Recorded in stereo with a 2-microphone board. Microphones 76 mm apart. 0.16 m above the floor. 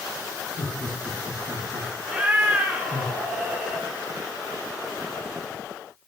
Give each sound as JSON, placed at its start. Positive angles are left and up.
{"t": 0.6, "sound": "laughter", "side_deg": 25, "distance_m": 1.1}
{"t": 2.0, "sound": "a cat meowing", "side_deg": -20, "distance_m": 1.0}